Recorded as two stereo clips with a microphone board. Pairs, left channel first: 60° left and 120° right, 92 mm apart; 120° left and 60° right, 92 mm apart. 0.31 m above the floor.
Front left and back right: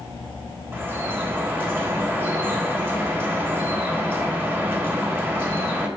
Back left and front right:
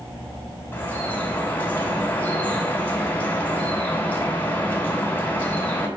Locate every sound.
0.7 s dripping: 175° right, 2.5 m